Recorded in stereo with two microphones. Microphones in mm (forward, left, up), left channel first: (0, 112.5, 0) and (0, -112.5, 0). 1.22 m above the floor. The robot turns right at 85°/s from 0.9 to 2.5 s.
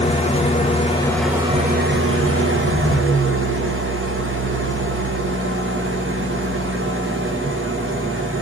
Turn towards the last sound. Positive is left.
turn(degrees=-70)